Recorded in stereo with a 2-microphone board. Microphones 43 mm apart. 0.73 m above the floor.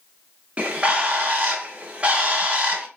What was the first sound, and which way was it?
A bird, 30° right (ahead or behind).